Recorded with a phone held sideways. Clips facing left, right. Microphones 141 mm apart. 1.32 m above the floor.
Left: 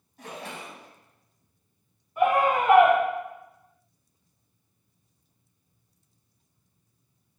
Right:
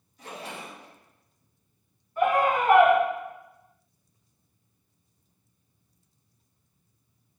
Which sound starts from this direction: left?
A splash, at 0.2 s.